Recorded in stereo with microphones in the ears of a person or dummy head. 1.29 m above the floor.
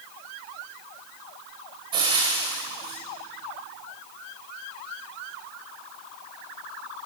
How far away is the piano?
No piano in this recording.